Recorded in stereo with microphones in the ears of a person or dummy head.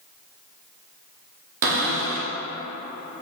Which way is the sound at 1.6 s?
50° right (ahead or behind).